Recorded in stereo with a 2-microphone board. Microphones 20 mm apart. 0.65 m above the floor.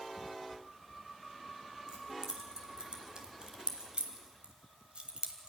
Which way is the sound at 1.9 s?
40° right (ahead or behind).